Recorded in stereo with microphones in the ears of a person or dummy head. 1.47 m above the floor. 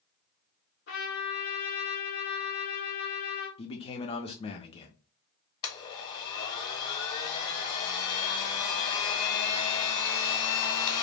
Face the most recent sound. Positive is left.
turn(degrees=25)  # may be behind; listen again after turning